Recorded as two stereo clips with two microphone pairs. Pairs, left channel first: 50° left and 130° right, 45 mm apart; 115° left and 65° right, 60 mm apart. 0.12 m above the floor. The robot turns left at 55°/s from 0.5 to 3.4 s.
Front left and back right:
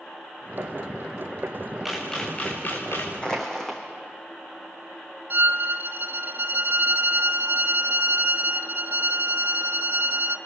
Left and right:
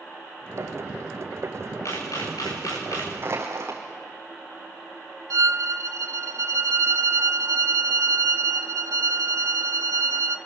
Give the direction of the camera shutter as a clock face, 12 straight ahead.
7 o'clock.